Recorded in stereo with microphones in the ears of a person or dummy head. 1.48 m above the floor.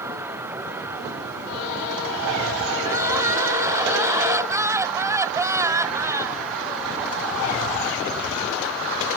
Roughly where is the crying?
Centre.